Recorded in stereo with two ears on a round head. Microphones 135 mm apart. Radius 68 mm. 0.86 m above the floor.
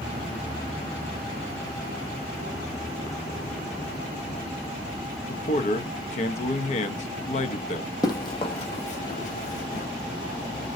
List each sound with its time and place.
5.3 s a man speaking: 45° left (ahead or behind), 0.6 m
8.0 s running footsteps: 25° left (ahead or behind), 1.2 m; by 9.9 s 60° left (ahead or behind), 1.7 m